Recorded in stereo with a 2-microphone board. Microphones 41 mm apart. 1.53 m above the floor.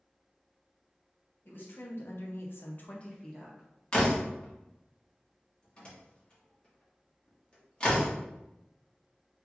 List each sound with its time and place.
1.4 s a woman speaking: 60° left (ahead or behind), 1.2 m; by 3.7 s 5° right (ahead or behind), 0.9 m
3.9 s a door slam: 25° left (ahead or behind), 1.2 m